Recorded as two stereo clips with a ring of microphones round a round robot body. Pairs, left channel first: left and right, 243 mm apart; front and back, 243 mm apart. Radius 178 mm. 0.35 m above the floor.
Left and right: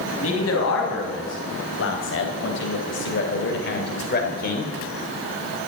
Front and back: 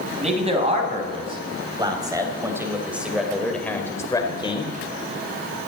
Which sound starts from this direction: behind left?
A man speaking, at 0.2 s.